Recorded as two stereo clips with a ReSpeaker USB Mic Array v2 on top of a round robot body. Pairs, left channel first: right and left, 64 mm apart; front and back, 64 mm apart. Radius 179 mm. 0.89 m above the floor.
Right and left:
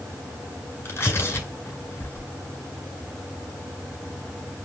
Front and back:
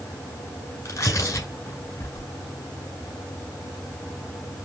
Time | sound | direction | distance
0.8 | tearing paper | 35° right | 5.5 m